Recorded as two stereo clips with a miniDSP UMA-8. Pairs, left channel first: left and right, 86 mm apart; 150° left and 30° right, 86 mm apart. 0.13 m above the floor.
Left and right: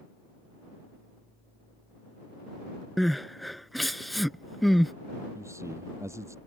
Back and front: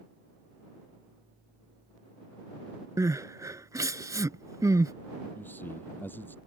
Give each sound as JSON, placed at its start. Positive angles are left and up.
{"t": 3.0, "sound": "crying", "azimuth_deg": 0}
{"t": 5.3, "sound": "a man speaking", "azimuth_deg": -145}